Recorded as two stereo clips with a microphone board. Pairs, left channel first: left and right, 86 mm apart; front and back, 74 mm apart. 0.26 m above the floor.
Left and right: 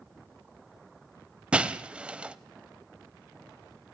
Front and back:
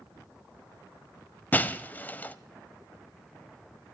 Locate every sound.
1.5 s breaking glass: 30° right, 0.7 m